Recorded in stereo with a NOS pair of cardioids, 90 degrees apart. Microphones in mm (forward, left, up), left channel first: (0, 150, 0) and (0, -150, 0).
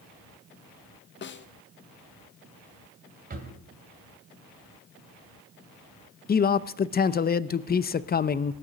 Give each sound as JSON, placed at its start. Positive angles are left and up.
{"t": 1.2, "sound": "a snare drum", "azimuth_deg": 35, "distance_m": 0.7}
{"t": 3.3, "sound": "a drawer", "azimuth_deg": -30, "distance_m": 2.5}
{"t": 6.3, "sound": "a man speaking", "azimuth_deg": 30, "distance_m": 0.6}